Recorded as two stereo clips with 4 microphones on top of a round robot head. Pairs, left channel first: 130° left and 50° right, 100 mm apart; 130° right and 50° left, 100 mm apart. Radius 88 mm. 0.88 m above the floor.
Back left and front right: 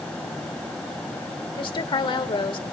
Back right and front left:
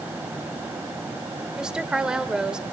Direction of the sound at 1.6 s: 130° left.